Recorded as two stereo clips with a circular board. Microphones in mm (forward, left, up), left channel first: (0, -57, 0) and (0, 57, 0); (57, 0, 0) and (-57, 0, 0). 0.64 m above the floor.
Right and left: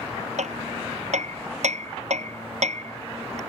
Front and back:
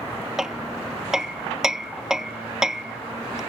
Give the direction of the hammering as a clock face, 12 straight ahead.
9 o'clock.